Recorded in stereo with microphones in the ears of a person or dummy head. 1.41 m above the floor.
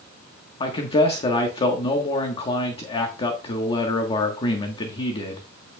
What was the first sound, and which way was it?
A man speaking, 35° left (ahead or behind).